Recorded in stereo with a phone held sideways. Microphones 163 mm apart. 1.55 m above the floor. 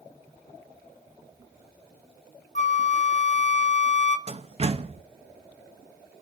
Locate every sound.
2.5 s a flute: 50° left (ahead or behind), 1.0 m
4.3 s a door slam: 40° right (ahead or behind), 1.1 m